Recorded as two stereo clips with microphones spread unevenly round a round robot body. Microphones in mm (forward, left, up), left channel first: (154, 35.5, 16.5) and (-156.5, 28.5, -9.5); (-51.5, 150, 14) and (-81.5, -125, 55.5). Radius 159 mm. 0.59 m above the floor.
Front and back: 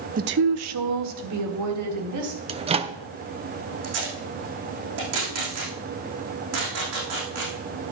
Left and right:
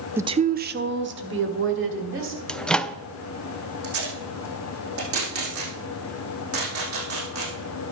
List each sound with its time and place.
0.2 s a woman speaking: 170° left, 0.6 m; by 2.4 s 140° right, 3.5 m
2.5 s a microwave: 150° left, 0.5 m
3.8 s tape being pulled: 135° right, 5 m